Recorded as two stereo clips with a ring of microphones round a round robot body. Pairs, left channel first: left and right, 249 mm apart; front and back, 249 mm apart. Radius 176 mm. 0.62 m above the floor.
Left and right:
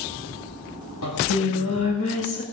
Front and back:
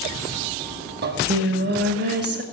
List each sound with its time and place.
1.0 s singing: 135° left, 2.5 m